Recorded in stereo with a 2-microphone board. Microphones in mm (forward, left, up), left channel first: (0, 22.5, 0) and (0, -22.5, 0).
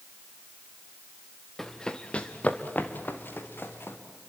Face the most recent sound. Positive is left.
turn(degrees=55)  # may be behind; listen again after turning